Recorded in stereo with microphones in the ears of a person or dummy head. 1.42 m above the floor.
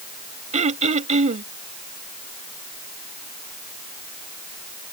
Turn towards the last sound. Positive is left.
turn(degrees=-35)  # may be behind; listen again after turning